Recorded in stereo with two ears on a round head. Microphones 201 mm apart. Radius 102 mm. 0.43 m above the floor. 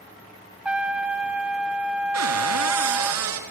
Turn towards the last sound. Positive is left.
turn(degrees=-75)  # may be behind; listen again after turning